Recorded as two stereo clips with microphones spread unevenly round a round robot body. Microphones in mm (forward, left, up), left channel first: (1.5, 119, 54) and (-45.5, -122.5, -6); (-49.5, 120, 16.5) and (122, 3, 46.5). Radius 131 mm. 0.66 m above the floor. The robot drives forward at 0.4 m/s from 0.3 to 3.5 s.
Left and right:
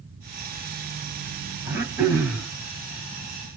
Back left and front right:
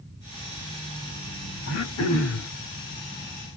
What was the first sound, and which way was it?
Throat clearing, 175° left.